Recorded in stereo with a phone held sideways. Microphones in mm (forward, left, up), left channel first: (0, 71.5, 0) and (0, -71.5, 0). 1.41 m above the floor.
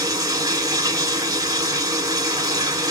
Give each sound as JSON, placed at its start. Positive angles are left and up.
{"t": 0.0, "sound": "running water", "side_deg": -25, "distance_m": 1.4}